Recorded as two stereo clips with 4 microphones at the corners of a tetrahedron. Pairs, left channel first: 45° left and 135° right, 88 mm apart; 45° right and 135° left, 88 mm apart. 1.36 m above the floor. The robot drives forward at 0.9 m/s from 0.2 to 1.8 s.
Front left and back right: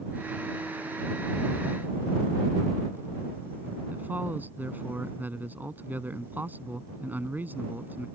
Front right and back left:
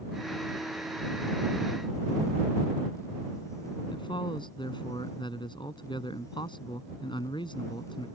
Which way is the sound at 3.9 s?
65° right.